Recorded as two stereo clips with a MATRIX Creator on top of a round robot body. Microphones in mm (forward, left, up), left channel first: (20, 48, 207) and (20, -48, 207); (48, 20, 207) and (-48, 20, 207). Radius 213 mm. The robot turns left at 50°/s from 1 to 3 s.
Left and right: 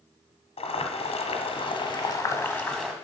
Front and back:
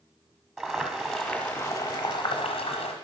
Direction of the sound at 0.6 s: 95° left.